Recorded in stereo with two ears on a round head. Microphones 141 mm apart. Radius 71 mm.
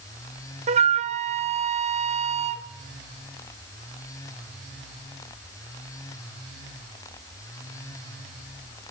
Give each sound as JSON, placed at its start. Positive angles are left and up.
{"t": 0.7, "sound": "a flute", "side_deg": -45, "distance_m": 1.3}